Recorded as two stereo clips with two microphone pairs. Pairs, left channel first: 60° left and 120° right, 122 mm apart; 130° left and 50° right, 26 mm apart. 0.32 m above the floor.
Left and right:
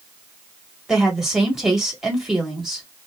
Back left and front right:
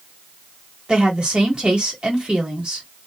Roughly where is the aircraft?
No aircraft in this recording.